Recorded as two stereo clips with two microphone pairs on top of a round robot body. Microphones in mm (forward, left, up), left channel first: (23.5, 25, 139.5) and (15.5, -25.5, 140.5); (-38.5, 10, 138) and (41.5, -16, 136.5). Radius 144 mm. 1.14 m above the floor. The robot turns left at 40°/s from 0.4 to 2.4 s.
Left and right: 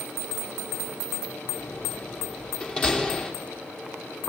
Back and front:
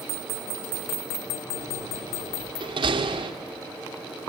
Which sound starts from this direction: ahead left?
A door slam, at 1.6 s.